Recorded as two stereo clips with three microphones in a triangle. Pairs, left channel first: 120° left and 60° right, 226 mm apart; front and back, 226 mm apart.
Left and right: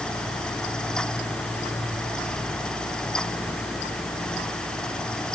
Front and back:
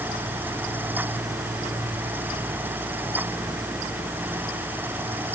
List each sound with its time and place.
Only background noise.